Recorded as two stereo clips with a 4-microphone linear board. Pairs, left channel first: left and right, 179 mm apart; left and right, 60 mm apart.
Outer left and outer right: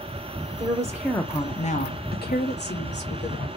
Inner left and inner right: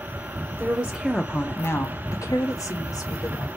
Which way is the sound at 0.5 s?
30° right (ahead or behind).